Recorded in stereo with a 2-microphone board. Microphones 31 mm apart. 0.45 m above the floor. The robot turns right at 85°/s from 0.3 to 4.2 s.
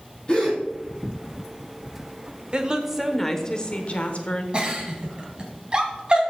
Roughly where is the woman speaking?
Ahead right.